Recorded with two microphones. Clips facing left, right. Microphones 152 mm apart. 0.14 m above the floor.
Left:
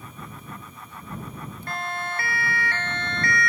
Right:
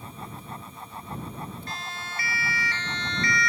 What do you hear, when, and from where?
1.7 s a siren: 55° left (ahead or behind); by 3.5 s 50° left (ahead or behind)